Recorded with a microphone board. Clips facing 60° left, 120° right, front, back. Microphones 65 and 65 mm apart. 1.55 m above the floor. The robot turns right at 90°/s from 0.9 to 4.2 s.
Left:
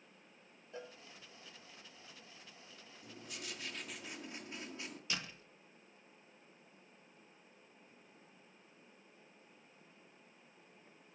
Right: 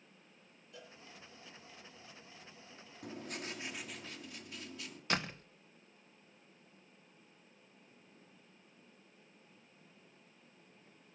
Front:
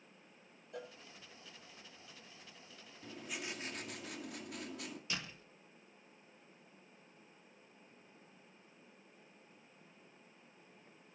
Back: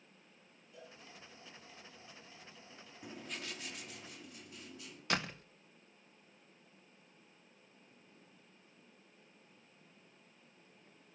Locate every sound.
0.7 s a cowbell: 5° left, 3 m; by 0.9 s 10° left, 3 m
3.0 s writing: 110° right, 2.5 m; by 5.0 s 5° right, 2.5 m
5.1 s a door slam: 155° right, 1.0 m